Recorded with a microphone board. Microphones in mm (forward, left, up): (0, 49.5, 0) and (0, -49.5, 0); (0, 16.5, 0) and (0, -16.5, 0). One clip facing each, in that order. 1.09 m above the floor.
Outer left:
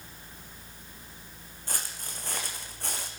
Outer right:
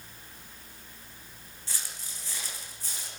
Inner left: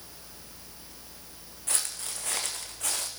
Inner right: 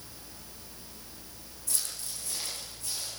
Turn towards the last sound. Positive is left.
turn(degrees=65)  # may be behind; listen again after turning